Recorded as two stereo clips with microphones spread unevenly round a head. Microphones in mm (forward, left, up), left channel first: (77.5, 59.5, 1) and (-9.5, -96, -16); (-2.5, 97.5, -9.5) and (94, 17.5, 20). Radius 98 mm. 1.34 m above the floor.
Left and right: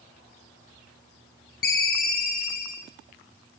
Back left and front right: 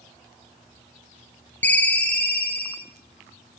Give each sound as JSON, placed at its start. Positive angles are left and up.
{"t": 1.6, "sound": "a ringtone", "azimuth_deg": 55, "distance_m": 0.9}